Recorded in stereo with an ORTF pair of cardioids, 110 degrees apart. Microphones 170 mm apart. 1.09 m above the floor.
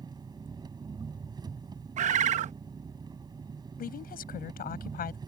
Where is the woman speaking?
60° left.